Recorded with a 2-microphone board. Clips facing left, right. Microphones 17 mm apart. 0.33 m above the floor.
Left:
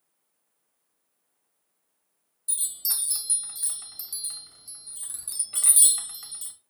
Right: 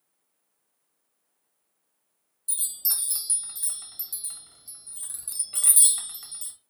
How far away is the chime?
About 1.4 m.